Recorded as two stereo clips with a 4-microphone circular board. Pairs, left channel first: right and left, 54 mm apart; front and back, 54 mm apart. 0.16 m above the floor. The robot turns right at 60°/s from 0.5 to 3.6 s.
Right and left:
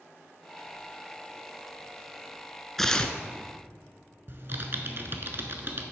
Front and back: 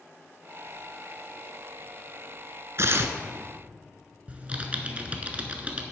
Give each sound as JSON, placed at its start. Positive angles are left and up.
{"t": 2.8, "sound": "tearing paper", "azimuth_deg": -175, "distance_m": 0.6}
{"t": 4.3, "sound": "typing on a keyboard", "azimuth_deg": 120, "distance_m": 0.9}